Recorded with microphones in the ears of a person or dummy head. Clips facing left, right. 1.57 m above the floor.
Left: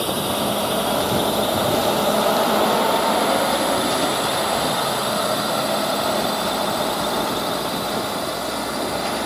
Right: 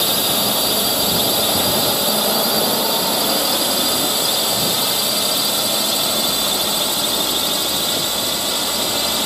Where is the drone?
25° right (ahead or behind); by 9.3 s 45° right (ahead or behind).